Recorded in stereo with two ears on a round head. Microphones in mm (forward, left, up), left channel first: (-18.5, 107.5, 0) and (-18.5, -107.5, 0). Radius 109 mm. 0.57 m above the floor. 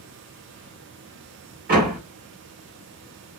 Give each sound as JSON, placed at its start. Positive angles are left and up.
{"t": 1.7, "sound": "a door slam", "side_deg": -40, "distance_m": 1.5}